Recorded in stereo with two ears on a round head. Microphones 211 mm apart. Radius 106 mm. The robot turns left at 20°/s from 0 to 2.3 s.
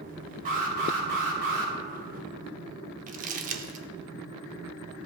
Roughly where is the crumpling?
Right.